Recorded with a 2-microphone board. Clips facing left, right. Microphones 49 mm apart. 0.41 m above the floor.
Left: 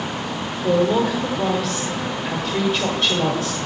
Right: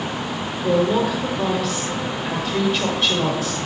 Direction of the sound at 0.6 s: Centre (ahead or behind).